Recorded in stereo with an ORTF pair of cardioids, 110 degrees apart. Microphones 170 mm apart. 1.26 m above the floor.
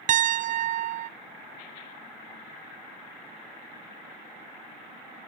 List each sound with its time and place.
0.1 s a piano: 45° right, 0.5 m